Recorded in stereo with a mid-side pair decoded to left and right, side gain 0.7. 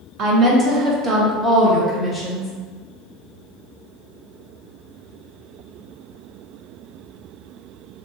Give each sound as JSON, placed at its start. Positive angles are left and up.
{"t": 0.2, "sound": "a woman speaking", "azimuth_deg": -45, "distance_m": 1.1}